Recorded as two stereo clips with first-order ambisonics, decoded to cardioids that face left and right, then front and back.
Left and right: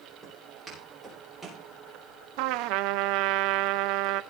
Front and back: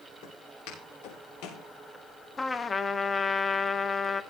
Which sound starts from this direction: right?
A trumpet, at 2.4 s.